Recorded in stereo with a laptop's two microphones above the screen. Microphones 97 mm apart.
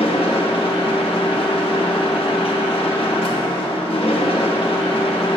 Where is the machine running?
70° left (ahead or behind), 0.8 m.